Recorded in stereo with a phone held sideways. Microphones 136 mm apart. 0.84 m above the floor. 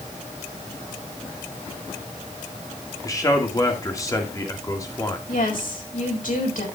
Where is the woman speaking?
80° left, 4.5 m.